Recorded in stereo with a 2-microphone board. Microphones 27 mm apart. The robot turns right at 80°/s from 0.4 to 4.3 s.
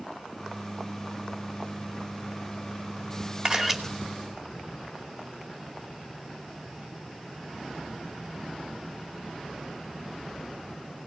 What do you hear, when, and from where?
3.5 s a camera shutter: 35° right (ahead or behind), 2 m; by 3.8 s 5° right (ahead or behind), 2 m